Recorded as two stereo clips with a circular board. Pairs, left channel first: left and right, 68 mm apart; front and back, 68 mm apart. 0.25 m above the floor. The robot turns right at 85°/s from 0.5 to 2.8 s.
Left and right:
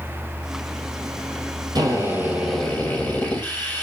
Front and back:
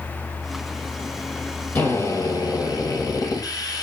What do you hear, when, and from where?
1.8 s a drill: 65° right, 4.5 m; by 3.8 s 25° left, 4.5 m